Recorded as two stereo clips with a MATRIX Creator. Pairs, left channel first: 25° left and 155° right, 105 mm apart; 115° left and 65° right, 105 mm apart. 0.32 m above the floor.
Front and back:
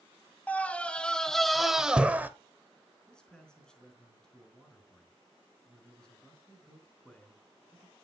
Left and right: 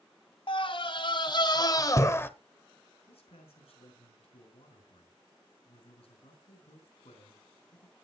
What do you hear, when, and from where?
0.5 s a scream: 95° left, 1.8 m; by 2.3 s 155° left, 1.0 m
3.1 s a man speaking: 105° left, 4.5 m